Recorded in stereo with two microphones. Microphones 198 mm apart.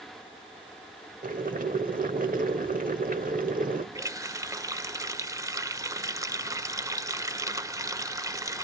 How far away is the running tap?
About 0.6 m.